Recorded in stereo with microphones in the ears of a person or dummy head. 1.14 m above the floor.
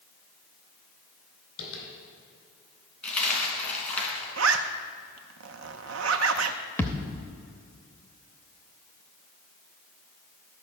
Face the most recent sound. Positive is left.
turn(degrees=10)  # may be behind; listen again after turning